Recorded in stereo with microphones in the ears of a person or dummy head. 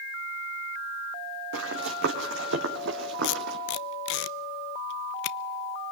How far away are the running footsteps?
About 4 m.